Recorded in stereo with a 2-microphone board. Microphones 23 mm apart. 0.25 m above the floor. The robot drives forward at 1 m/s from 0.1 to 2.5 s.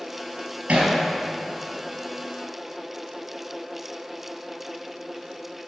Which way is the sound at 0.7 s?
75° right (ahead or behind).